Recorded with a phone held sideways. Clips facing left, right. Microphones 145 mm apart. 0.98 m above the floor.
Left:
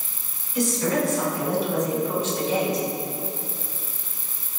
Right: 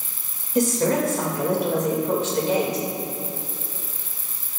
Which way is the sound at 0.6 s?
45° right (ahead or behind).